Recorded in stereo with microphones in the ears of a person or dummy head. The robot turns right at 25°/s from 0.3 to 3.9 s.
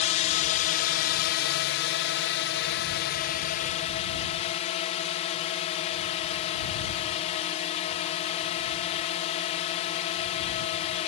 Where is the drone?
45° left; by 11.1 s 135° left.